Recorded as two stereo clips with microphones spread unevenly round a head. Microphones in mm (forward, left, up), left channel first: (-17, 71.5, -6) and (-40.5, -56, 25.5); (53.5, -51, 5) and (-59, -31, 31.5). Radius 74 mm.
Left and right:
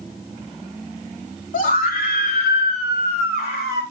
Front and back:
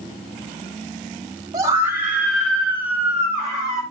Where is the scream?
100° left, 2 m; by 3.8 s 60° left, 4.5 m.